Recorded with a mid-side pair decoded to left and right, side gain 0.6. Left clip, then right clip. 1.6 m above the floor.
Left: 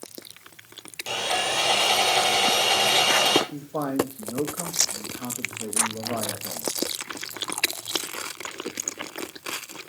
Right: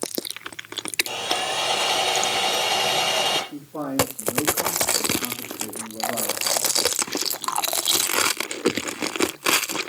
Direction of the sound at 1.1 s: 30° left.